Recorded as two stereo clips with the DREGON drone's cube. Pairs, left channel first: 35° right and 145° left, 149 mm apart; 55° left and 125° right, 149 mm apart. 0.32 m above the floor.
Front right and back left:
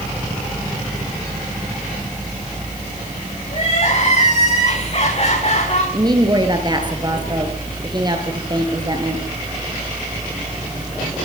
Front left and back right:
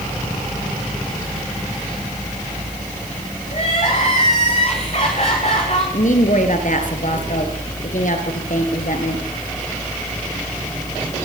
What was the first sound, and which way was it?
Crying, 10° left.